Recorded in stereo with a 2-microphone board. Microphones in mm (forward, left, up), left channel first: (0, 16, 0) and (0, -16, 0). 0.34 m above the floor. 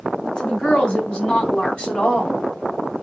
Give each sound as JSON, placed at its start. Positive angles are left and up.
{"t": 0.2, "sound": "a woman speaking", "side_deg": 40, "distance_m": 3.0}